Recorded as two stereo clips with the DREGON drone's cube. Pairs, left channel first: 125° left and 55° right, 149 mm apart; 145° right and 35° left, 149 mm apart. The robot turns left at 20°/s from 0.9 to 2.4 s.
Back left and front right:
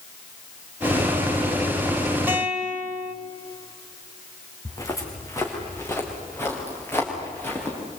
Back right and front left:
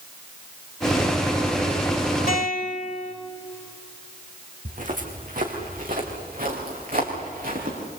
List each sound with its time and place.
2.3 s a guitar: 130° right, 2.5 m; by 3.1 s 135° right, 2.5 m
4.7 s footsteps: 60° left, 4.5 m; by 7.8 s 50° left, 7.5 m